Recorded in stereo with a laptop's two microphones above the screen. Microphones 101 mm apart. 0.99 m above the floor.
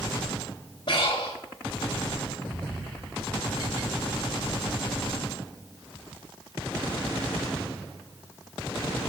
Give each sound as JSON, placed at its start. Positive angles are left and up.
{"t": 0.9, "sound": "breathing", "side_deg": 50, "distance_m": 1.5}